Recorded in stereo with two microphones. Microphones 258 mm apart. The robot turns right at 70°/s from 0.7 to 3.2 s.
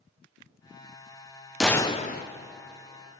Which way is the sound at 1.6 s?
Straight ahead.